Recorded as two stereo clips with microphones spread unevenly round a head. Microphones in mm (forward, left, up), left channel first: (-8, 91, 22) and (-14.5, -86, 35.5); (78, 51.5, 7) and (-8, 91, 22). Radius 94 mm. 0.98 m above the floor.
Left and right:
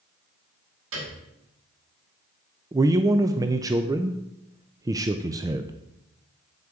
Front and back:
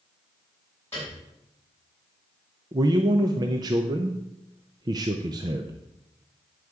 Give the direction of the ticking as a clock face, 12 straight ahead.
No ticking in this recording.